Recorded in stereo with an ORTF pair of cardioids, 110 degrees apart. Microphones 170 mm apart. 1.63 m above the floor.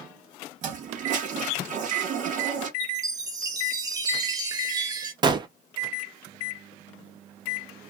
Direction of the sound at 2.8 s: 25° right.